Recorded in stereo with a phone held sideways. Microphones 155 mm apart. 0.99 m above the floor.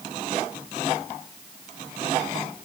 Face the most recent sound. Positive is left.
No sound to turn to.